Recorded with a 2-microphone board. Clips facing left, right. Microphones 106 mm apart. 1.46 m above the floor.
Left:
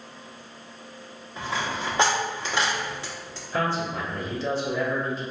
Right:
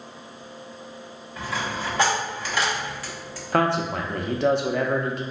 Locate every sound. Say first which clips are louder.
1.4 s a dropped coin: even; 25° left (ahead or behind), 0.9 m
3.5 s a man speaking: right 5 dB; 65° right (ahead or behind), 0.5 m